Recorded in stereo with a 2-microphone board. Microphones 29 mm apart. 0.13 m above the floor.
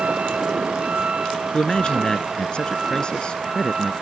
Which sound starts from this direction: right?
A vehicle, at 0.0 s.